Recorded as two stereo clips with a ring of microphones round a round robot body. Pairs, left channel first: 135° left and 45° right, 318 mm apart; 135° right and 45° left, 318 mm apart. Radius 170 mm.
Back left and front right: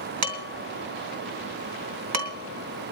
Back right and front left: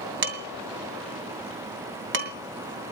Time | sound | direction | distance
0.2 | dishes clattering | 10° right | 2.5 m